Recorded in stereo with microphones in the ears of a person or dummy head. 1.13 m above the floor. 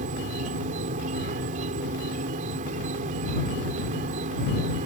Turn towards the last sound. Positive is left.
turn(degrees=-40)  # may be behind; listen again after turning